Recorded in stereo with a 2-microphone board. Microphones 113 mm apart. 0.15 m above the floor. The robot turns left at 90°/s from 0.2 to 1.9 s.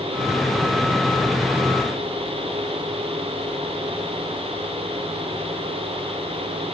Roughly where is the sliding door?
No sliding door in this recording.